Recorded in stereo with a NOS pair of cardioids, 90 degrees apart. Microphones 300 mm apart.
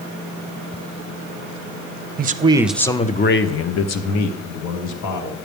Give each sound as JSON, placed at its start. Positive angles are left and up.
{"t": 2.2, "sound": "a man speaking", "azimuth_deg": -30, "distance_m": 0.8}